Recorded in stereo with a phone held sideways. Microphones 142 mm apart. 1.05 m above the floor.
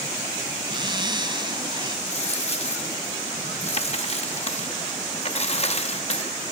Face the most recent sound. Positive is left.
turn(degrees=45)  # may be behind; listen again after turning